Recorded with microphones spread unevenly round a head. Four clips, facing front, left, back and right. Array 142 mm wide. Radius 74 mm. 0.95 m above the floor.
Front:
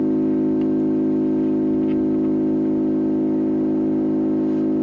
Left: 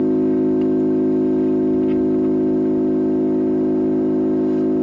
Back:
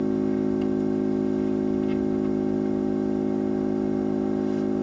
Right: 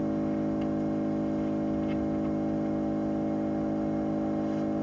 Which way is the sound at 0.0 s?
60° left.